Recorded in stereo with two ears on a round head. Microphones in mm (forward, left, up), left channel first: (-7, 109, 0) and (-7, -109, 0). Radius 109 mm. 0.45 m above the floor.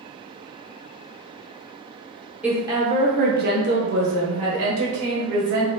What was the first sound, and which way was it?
A woman speaking, 5° right (ahead or behind).